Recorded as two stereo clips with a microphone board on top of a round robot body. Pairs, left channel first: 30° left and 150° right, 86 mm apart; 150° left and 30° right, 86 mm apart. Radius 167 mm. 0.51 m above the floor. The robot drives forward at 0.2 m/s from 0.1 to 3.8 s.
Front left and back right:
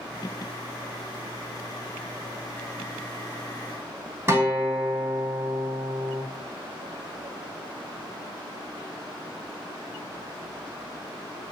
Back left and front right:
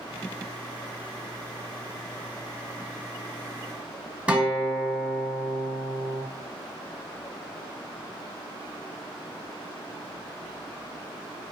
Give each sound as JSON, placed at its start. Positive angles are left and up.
{"t": 4.3, "sound": "a guitar", "azimuth_deg": -100, "distance_m": 1.6}